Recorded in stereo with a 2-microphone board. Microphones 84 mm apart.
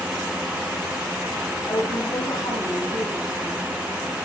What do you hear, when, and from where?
1.7 s a woman speaking: 60° left (ahead or behind), 8.5 m